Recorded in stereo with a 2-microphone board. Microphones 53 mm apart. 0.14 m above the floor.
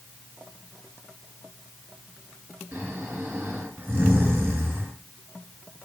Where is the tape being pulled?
No tape being pulled in this recording.